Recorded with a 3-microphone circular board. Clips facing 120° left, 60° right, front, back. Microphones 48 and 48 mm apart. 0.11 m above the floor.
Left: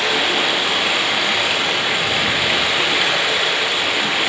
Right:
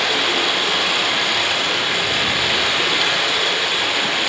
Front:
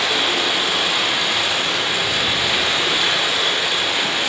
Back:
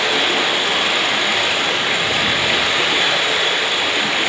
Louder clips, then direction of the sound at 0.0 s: Left 1 dB, back 2 dB; 170° right.